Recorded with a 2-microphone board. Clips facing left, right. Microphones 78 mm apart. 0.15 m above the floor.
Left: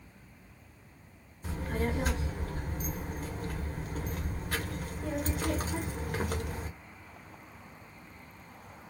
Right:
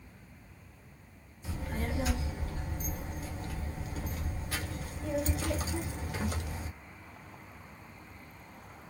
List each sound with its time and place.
1.4 s a child speaking: 50° left (ahead or behind), 1.1 m